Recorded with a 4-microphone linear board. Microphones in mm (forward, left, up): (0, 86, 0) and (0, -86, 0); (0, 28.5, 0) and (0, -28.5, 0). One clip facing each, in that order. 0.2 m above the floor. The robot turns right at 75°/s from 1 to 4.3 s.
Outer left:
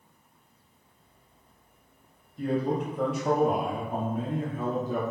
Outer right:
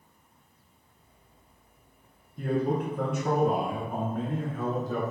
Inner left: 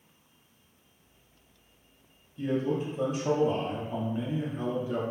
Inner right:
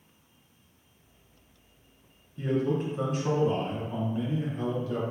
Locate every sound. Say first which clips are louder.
2.4 s a man speaking: even, inner right 1 dB; 125° right, 1.8 m; by 5.0 s 20° left, 1.8 m